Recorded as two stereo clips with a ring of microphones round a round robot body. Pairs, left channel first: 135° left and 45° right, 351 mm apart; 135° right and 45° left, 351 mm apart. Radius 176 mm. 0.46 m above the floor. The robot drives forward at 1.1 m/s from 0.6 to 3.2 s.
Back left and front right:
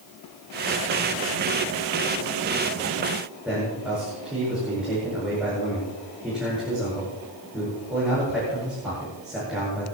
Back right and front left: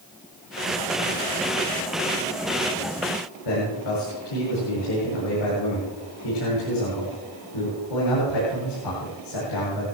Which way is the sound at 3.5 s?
130° right.